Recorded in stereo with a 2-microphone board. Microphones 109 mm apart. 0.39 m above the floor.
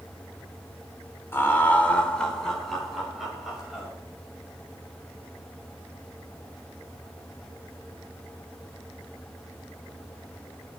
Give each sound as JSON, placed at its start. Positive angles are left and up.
{"t": 1.3, "sound": "laughter", "side_deg": 20, "distance_m": 0.8}